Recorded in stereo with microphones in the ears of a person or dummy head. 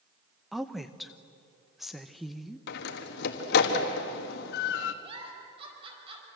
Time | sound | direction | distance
0.5 | a woman speaking | 5° right (ahead or behind) | 0.9 m
2.7 | a door slam | 55° left (ahead or behind) | 1.5 m
5.0 | a giggle | 25° right (ahead or behind) | 5 m